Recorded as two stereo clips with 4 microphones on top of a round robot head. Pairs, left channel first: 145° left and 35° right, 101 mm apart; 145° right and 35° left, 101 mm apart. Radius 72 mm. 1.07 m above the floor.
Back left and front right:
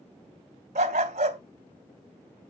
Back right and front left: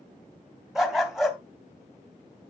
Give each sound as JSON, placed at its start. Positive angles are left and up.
{"t": 0.8, "sound": "a dog barking", "azimuth_deg": -55, "distance_m": 0.8}